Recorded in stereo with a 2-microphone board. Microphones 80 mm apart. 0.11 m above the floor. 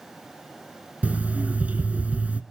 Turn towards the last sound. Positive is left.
turn(degrees=-20)  # may be behind; listen again after turning